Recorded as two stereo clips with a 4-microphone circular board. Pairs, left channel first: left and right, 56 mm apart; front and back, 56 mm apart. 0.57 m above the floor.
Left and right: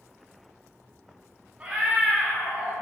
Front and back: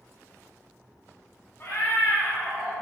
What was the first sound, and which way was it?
A cat meowing, 30° right.